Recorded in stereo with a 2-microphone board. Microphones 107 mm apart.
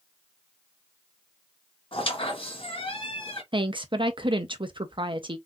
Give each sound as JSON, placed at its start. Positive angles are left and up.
{"t": 1.9, "sound": "a squeak", "side_deg": 50, "distance_m": 2.0}
{"t": 3.5, "sound": "a woman speaking", "side_deg": -45, "distance_m": 0.6}